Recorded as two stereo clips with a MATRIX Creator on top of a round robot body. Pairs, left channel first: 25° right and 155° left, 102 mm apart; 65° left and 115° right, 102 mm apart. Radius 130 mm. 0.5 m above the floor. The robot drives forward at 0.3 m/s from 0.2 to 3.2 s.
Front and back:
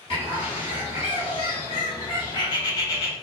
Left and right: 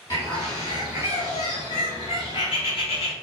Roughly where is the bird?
Ahead.